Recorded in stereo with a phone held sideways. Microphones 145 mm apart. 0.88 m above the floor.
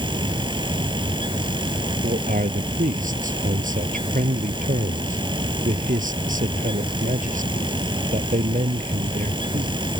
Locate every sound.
0.0 s a fan: 35° right (ahead or behind)
2.0 s a man speaking: 65° right (ahead or behind)